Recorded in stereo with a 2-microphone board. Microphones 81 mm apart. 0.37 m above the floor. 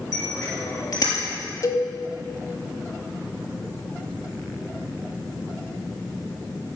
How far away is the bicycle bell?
About 4.5 m.